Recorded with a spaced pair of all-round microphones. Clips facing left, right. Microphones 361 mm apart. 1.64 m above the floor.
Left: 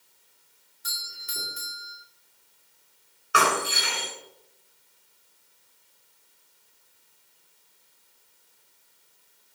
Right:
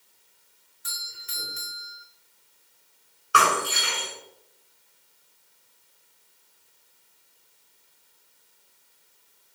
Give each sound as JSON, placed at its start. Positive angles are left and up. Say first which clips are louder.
{"t": 0.8, "sound": "a doorbell", "louder": "left 1 dB", "side_deg": 50, "distance_m": 7.0}
{"t": 3.3, "sound": "breaking glass", "louder": "even", "side_deg": 0, "distance_m": 7.5}